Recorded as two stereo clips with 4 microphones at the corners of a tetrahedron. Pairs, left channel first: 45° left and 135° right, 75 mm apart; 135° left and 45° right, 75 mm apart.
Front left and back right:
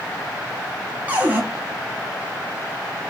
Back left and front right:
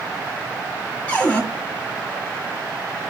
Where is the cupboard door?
175° right, 1.2 m.